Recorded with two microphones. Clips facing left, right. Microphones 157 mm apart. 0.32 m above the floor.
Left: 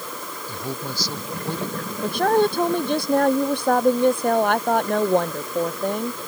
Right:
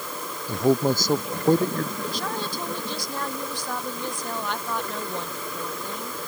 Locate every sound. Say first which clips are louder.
0.5 s a man speaking: right 12 dB; 45° right (ahead or behind)
2.0 s a woman speaking: left 11 dB; 60° left (ahead or behind)